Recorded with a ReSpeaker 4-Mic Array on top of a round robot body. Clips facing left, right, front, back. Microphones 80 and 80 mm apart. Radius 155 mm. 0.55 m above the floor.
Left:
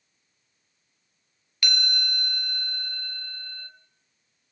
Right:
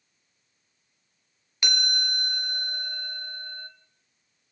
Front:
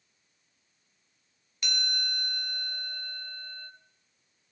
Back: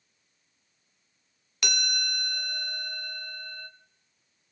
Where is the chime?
160° right, 0.8 m.